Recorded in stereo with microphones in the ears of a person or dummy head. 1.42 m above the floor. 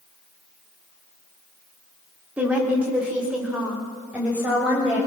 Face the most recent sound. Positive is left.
turn(degrees=-5)  # may be behind; listen again after turning